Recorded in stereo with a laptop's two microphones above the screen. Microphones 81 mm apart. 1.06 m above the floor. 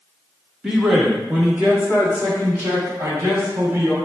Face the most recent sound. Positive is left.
turn(degrees=-30)  # may be behind; listen again after turning